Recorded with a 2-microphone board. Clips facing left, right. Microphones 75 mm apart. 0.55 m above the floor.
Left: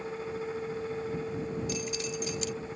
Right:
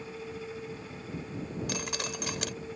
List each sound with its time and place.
1.7 s dripping: 65° right (ahead or behind)